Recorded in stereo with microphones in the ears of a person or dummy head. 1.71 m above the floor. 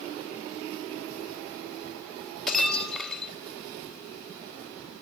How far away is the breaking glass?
About 2.5 m.